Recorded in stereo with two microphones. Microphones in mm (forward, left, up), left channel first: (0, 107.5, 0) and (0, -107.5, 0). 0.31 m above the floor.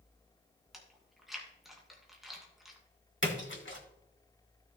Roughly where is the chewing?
Centre.